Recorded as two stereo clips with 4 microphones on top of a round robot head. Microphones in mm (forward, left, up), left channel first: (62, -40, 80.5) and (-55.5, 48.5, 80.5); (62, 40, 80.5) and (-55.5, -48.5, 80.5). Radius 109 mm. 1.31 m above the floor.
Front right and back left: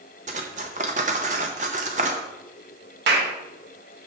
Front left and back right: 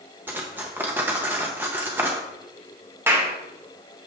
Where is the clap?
140° left, 1.6 m.